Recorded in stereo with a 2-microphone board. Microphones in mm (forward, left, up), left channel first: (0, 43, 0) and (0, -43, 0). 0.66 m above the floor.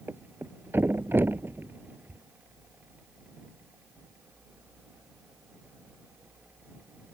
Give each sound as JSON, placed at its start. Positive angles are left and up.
{"t": 0.1, "sound": "a thud", "side_deg": -25}